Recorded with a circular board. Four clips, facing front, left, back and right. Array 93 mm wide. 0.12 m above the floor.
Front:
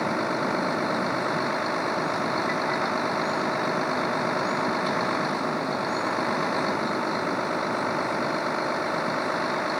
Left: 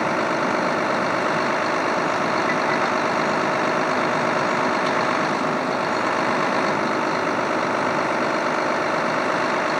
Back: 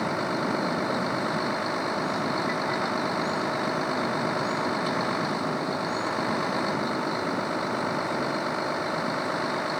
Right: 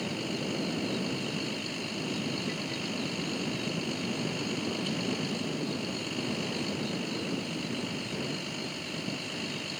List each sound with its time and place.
0.0 s a vehicle: 85° left